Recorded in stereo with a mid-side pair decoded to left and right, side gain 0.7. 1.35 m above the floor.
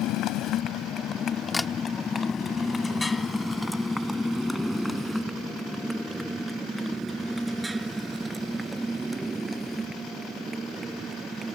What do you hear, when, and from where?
0.0 s a motorcycle: 60° left; by 11.6 s 20° right
1.5 s a camera shutter: 10° left